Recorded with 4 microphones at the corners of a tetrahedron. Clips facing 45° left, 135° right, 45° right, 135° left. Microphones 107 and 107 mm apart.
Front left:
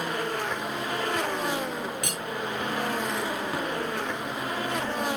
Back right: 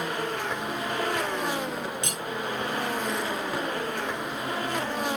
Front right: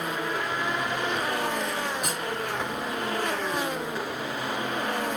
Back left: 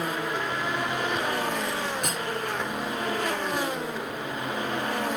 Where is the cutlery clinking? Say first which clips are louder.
Even, back left 1 dB; 115° right, 0.8 m.